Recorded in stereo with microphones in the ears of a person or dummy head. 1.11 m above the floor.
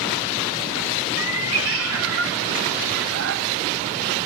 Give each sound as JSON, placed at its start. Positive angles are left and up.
{"t": 1.2, "sound": "a cat meowing", "side_deg": -65, "distance_m": 2.0}